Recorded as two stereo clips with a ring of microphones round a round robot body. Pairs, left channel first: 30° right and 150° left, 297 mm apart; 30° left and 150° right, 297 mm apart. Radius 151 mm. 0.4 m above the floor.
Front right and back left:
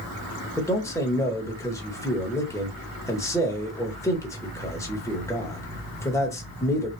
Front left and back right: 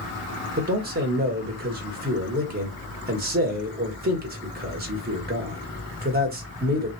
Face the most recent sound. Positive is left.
turn(degrees=-105)